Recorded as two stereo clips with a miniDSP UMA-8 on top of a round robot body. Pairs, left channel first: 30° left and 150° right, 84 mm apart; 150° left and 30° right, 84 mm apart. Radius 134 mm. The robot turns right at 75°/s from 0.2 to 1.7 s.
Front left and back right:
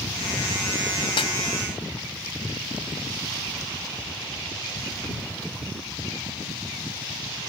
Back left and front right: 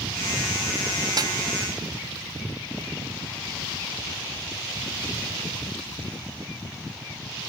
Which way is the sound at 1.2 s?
10° left.